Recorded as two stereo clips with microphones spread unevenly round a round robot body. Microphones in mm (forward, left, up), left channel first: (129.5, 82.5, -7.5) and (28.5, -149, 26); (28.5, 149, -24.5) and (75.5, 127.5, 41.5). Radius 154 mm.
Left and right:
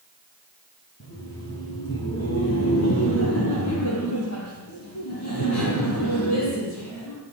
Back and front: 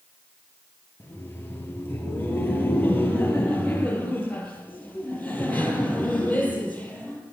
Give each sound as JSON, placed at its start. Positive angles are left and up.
{"t": 1.0, "sound": "laughter", "azimuth_deg": 120, "distance_m": 7.5}